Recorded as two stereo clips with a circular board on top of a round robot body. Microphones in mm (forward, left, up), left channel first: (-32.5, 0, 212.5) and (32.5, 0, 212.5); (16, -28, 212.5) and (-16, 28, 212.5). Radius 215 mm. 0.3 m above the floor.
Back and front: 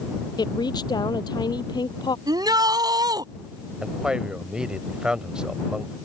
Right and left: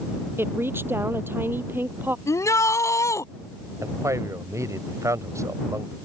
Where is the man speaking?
80° left.